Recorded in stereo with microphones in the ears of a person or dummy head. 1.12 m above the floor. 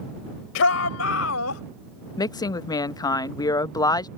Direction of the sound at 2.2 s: 20° left (ahead or behind).